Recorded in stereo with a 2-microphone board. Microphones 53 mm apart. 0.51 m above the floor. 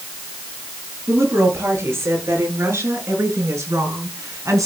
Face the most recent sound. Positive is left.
turn(degrees=-75)  # may be behind; listen again after turning